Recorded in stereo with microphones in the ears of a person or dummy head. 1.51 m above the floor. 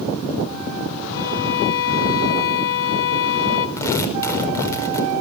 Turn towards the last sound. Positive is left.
turn(degrees=20)  # may be behind; listen again after turning